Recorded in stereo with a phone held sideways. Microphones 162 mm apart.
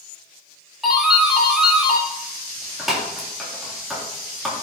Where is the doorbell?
Centre (ahead or behind), 3.5 m.